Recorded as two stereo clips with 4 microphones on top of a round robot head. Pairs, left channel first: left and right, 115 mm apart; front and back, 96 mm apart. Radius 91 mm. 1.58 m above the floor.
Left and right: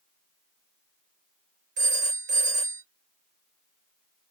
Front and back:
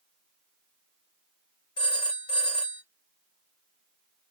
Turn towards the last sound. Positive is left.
turn(degrees=-60)